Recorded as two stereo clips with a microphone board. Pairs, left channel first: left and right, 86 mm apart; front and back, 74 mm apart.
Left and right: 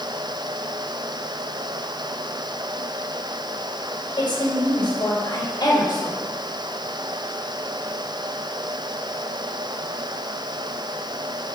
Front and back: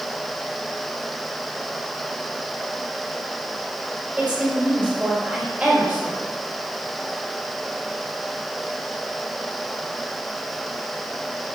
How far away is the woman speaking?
About 4 m.